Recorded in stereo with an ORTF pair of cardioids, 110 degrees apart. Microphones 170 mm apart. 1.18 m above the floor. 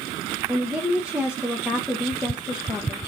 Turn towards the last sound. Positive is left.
turn(degrees=-5)